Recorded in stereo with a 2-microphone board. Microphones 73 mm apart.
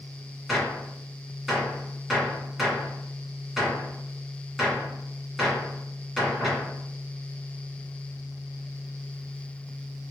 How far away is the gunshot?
About 1.9 m.